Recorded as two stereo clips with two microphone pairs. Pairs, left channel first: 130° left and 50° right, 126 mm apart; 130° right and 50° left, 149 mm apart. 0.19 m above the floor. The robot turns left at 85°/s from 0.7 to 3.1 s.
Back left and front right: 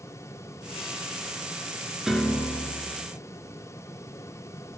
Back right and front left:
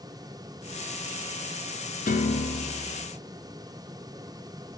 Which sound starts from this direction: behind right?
A piano, at 2.1 s.